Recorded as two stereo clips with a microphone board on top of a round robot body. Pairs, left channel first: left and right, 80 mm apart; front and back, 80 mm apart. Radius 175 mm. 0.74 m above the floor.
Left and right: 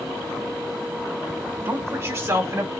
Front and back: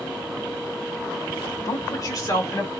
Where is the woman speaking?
35° right, 2.5 m; by 2.7 s 50° right, 1.8 m.